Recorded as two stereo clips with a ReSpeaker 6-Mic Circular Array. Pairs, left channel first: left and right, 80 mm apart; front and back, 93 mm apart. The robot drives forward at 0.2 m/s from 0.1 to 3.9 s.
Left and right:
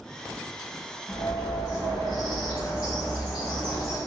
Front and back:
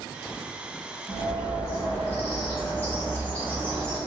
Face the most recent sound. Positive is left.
turn(degrees=75)